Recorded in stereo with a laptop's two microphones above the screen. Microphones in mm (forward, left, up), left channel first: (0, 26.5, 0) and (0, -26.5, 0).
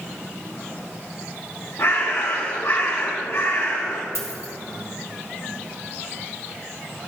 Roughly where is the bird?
Left.